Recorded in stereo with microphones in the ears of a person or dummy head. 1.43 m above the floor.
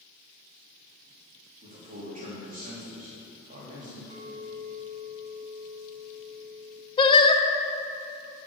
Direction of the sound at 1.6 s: 35° right (ahead or behind).